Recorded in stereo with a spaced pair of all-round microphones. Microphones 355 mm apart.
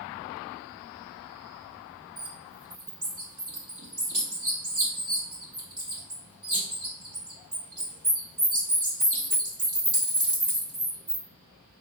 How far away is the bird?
About 1.1 m.